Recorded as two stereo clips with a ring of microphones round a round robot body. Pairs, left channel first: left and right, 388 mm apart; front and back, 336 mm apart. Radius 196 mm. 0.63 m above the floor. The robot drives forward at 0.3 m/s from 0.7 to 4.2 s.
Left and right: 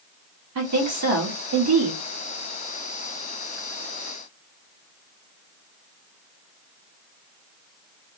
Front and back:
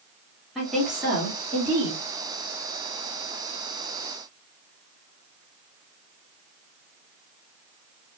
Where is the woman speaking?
90° right, 1.3 m; by 2.0 s 115° right, 1.4 m.